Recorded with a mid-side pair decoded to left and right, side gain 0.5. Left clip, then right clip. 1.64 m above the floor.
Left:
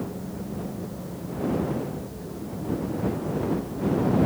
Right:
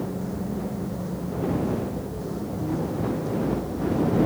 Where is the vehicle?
30° right; by 4.3 s 40° right.